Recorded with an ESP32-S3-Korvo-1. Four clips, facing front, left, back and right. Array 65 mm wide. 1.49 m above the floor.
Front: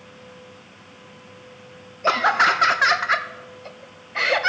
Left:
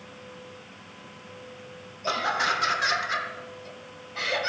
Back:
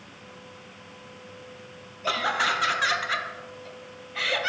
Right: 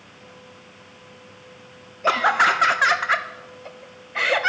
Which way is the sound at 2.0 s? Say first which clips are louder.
Right 8 dB, front 8 dB; 45° right.